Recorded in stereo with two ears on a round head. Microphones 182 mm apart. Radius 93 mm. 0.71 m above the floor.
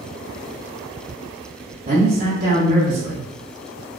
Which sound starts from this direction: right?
A man speaking, at 1.9 s.